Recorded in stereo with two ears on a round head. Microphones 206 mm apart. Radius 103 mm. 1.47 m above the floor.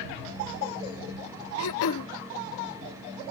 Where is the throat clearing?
75° left (ahead or behind).